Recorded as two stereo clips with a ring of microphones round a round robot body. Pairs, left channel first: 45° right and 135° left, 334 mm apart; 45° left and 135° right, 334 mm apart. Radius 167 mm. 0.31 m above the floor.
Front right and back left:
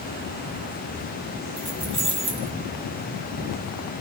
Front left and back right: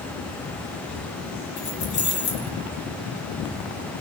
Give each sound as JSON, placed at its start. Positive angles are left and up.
{"t": 1.6, "sound": "keys jangling", "azimuth_deg": 60, "distance_m": 4.0}